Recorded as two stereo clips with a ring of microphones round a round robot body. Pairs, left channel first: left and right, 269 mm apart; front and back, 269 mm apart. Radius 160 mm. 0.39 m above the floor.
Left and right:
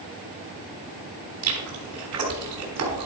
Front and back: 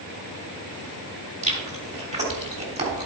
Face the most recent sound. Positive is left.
turn(degrees=-115)